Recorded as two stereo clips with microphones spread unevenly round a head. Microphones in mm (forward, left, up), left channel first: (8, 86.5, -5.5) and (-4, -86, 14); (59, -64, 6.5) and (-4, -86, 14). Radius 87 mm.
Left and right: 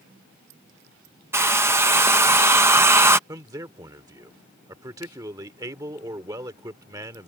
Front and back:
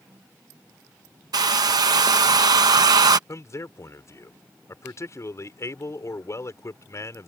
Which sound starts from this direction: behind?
A hair dryer, at 1.3 s.